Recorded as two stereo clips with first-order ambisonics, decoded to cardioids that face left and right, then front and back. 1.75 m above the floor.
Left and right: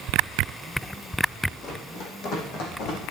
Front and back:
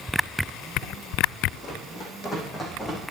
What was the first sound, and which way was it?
Running footsteps, 55° left.